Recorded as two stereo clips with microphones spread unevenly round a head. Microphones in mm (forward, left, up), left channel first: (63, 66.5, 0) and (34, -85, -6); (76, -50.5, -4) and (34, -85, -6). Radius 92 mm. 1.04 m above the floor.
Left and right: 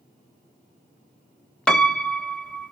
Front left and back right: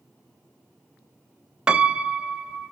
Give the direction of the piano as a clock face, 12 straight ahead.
7 o'clock.